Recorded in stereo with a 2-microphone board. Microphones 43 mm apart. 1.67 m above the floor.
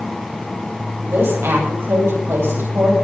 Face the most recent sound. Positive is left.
turn(degrees=-65)  # may be behind; listen again after turning